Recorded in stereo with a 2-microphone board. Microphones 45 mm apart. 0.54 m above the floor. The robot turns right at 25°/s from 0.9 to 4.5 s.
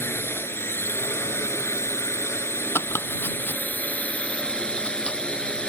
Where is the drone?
65° left; by 5.7 s 155° left.